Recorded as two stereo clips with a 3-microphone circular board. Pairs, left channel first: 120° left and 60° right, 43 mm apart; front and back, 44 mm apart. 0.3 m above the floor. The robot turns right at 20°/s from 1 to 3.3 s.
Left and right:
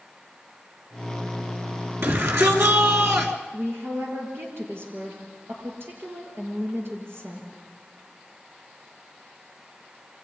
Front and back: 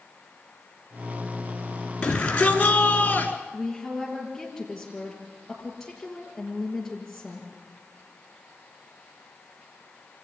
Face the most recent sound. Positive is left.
turn(degrees=-85)